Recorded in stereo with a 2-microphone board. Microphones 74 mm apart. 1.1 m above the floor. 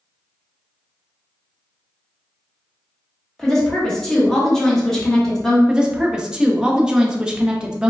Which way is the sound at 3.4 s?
5° left (ahead or behind).